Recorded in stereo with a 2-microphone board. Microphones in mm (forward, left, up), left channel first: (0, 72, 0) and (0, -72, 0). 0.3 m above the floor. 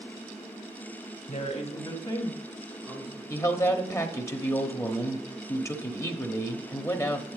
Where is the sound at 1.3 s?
60° left (ahead or behind), 1.9 m; by 3.2 s 10° right (ahead or behind), 2 m.